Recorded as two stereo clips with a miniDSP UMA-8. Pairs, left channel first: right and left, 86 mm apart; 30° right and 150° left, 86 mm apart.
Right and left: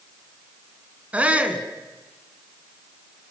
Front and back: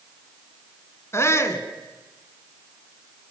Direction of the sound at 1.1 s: 20° left.